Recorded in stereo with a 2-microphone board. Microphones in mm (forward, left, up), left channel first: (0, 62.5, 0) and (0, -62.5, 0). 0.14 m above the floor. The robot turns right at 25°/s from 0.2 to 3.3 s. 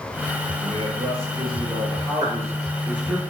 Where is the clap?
50° right (ahead or behind), 2.5 m.